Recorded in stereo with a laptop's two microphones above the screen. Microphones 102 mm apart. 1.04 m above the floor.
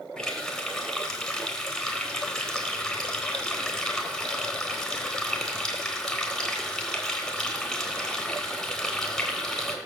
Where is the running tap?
5° left (ahead or behind), 3.5 m.